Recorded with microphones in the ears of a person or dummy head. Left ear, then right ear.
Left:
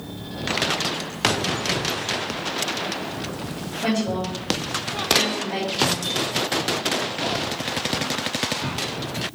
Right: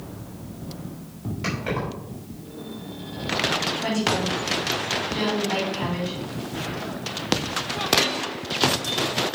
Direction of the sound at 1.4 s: 5° left (ahead or behind).